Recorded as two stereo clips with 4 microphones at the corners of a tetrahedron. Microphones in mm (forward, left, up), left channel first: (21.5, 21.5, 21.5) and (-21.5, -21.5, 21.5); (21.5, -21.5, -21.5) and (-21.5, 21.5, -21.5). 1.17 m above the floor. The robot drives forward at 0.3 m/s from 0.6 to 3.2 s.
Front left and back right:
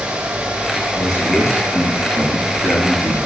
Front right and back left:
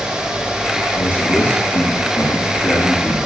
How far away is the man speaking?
About 5.5 m.